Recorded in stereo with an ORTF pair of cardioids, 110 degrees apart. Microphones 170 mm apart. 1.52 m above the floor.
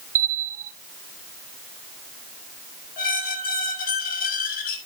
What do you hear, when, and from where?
0.1 s a bell: 55° right, 1.1 m
3.0 s a squeak: 60° left, 4.5 m